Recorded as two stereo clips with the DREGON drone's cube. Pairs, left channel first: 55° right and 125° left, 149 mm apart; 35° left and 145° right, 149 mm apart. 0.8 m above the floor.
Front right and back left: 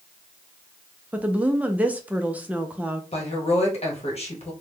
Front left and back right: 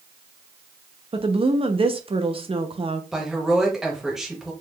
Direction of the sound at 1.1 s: 160° right.